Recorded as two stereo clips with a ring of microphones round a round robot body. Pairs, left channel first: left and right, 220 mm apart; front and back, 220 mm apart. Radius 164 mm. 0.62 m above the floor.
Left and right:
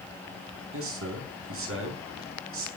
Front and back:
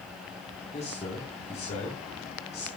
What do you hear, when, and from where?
0.7 s a man speaking: 70° right, 5.5 m